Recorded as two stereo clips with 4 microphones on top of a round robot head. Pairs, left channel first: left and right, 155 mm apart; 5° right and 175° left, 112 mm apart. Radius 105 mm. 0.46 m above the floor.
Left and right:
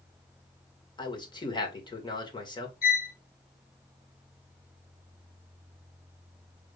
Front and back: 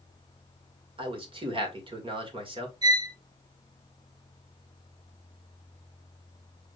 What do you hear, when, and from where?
1.0 s a man speaking: 145° left, 2.0 m
2.8 s a violin: 120° left, 1.4 m